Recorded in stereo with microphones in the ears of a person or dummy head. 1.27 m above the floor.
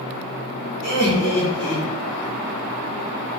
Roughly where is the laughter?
Left.